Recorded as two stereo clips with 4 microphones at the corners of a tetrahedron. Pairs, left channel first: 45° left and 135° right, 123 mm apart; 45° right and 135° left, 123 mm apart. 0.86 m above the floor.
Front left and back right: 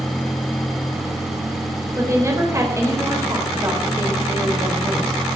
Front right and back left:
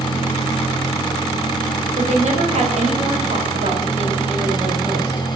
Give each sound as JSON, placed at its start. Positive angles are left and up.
{"t": 2.0, "sound": "a woman speaking", "azimuth_deg": 160, "distance_m": 4.0}